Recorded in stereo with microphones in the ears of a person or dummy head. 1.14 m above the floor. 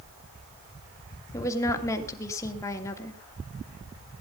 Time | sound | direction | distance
1.3 | a woman speaking | 15° left (ahead or behind) | 2.5 m